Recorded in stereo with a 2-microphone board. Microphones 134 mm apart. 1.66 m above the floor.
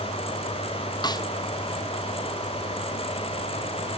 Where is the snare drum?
30° left (ahead or behind), 0.5 m.